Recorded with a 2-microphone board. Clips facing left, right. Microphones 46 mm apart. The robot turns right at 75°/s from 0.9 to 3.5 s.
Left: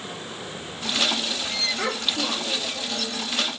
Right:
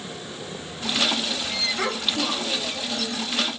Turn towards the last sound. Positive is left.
turn(degrees=75)